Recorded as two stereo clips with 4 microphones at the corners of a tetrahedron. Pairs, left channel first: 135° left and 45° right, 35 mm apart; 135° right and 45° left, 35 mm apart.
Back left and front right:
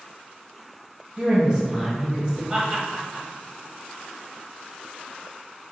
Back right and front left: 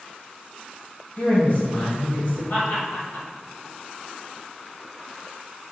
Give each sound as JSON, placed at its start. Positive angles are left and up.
{"t": 1.2, "sound": "a woman speaking", "azimuth_deg": -105, "distance_m": 1.7}
{"t": 2.5, "sound": "laughter", "azimuth_deg": -120, "distance_m": 1.4}